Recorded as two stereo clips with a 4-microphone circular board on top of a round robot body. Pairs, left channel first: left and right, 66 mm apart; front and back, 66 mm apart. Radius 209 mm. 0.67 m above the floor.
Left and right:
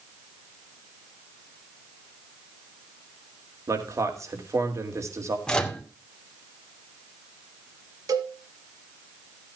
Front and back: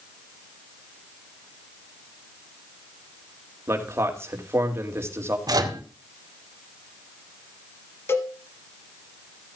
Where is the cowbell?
55° right, 1.2 m.